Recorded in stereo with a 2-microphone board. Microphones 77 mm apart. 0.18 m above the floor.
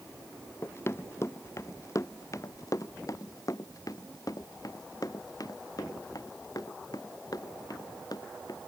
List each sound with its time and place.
0.6 s running footsteps: 35° left (ahead or behind); by 8.6 s 60° left (ahead or behind)